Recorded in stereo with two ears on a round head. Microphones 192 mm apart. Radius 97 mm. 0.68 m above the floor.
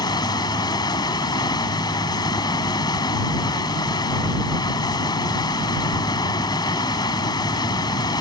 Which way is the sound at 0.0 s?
20° left (ahead or behind).